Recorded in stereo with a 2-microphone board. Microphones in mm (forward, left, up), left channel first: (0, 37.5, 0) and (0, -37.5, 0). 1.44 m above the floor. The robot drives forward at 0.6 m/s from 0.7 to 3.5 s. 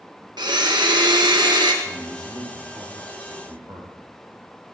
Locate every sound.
0.4 s a blender: 80° right, 1.4 m; by 1.7 s 75° right (ahead or behind), 1.4 m
1.8 s a man speaking: 60° right (ahead or behind), 4.5 m; by 4.0 s 75° right (ahead or behind), 4 m